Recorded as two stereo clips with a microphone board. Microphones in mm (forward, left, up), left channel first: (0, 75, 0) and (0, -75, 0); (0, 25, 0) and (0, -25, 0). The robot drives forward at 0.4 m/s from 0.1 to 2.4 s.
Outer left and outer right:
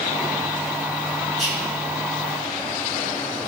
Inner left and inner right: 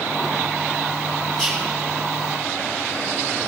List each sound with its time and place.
1.4 s whispering: centre (ahead or behind), 4 m